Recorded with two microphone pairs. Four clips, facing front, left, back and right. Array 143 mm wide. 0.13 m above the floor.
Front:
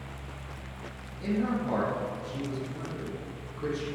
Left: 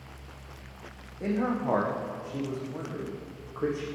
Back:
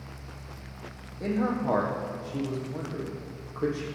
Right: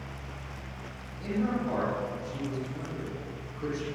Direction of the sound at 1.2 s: 140° left.